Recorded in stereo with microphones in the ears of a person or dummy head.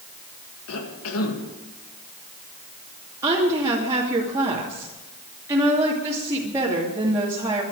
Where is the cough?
80° left, 2 m.